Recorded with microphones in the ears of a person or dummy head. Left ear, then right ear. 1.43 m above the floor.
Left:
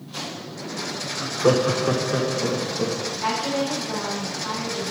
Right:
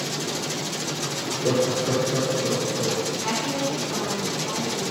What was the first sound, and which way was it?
Laughter, 50° left (ahead or behind).